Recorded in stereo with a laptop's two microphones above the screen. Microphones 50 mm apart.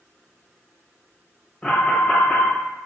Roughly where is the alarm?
Centre.